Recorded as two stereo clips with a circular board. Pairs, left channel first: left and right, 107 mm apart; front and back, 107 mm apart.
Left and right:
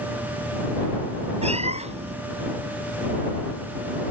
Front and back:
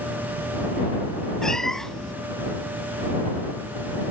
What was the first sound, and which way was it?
A cat meowing, 85° right.